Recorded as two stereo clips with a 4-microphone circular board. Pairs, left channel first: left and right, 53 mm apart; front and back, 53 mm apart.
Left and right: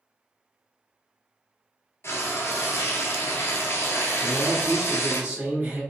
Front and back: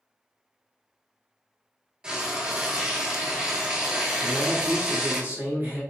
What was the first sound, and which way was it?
Frying, 110° left.